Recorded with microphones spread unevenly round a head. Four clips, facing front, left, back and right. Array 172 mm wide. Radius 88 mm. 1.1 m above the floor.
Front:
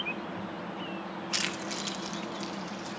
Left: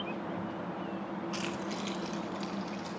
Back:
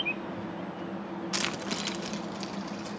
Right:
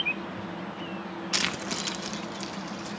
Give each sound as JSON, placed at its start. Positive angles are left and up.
{"t": 1.3, "sound": "keys jangling", "azimuth_deg": -80, "distance_m": 0.6}